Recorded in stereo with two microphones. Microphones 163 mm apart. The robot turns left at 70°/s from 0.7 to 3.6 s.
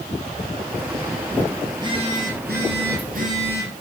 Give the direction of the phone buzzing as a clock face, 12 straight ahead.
1 o'clock.